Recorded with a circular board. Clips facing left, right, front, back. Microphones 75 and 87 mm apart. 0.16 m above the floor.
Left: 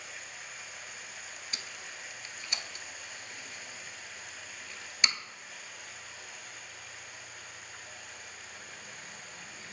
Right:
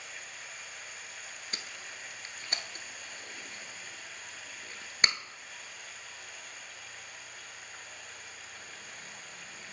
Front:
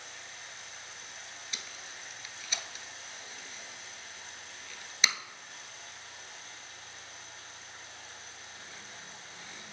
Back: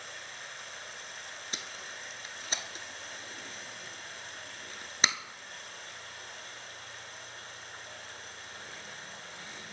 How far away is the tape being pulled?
About 0.5 m.